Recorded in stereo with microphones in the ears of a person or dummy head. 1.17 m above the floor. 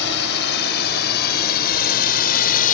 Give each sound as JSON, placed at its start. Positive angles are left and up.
{"t": 0.0, "sound": "a drone", "side_deg": 60}